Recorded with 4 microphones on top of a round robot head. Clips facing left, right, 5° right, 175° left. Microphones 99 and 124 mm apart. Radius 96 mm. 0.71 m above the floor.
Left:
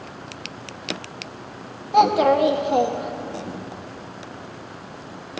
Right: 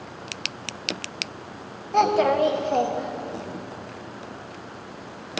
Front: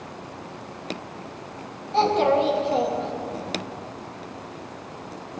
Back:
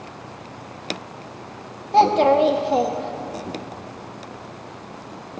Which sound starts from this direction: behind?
A child speaking, at 1.9 s.